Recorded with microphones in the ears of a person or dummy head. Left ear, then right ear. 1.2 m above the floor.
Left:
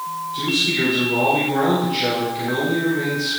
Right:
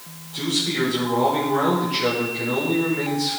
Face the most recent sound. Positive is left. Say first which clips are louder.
# left 3 dB
turn(degrees=-45)  # may be behind; listen again after turning